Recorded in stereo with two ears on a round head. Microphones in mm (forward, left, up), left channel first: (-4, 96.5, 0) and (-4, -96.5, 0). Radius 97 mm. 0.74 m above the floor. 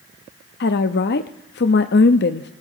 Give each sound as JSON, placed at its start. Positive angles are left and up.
{"t": 0.6, "sound": "a woman speaking", "side_deg": 50, "distance_m": 0.6}